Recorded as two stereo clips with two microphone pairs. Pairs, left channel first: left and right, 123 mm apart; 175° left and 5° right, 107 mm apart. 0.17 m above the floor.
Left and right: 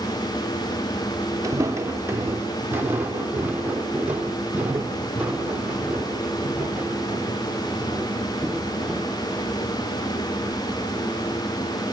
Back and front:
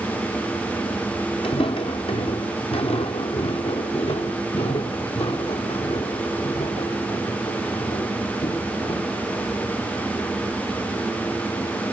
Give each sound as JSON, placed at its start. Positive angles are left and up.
{"t": 1.4, "sound": "footsteps", "azimuth_deg": -155, "distance_m": 1.2}